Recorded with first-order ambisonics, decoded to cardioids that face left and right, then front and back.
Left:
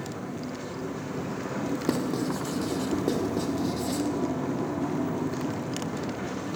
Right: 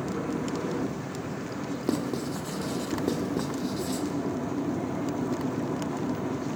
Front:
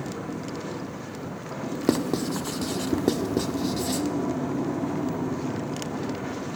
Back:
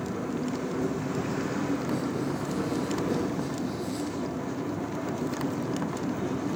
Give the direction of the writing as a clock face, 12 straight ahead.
12 o'clock.